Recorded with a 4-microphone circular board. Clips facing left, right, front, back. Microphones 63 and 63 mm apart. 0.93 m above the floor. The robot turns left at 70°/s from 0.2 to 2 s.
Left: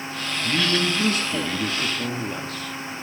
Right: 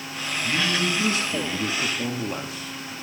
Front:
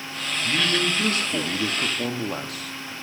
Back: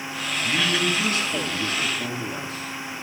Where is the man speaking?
90° left, 1.3 m; by 2.9 s 20° right, 1.3 m.